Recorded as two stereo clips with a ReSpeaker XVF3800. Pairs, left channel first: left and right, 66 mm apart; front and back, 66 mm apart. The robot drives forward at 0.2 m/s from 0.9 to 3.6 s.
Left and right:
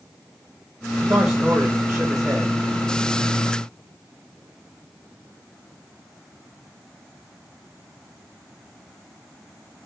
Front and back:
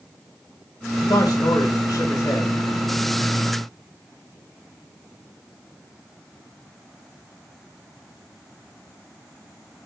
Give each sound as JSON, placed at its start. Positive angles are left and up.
{"t": 1.1, "sound": "a man speaking", "azimuth_deg": -35, "distance_m": 1.2}